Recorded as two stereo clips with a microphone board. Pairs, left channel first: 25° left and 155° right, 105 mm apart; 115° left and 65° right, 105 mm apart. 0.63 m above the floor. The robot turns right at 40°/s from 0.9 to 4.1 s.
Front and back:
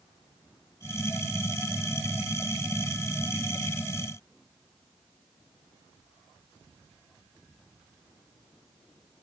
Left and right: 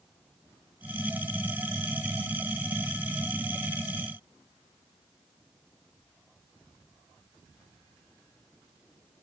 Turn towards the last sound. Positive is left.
No sound to turn to.